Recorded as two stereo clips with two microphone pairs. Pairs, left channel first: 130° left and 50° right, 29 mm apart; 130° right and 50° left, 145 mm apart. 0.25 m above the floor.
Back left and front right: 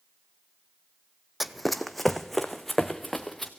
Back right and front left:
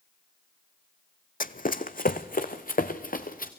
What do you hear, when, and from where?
1.4 s running footsteps: 130° right, 0.6 m; by 3.5 s 145° right, 1.7 m